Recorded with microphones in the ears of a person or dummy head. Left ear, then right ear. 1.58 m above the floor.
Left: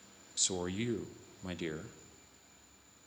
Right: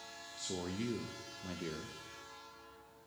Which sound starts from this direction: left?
A man speaking, at 0.4 s.